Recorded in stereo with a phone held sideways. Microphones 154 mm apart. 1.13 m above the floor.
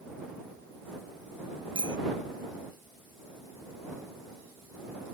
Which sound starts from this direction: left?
A bicycle bell, at 1.8 s.